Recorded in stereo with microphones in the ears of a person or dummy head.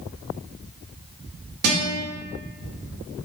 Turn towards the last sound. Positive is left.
turn(degrees=-60)  # may be behind; listen again after turning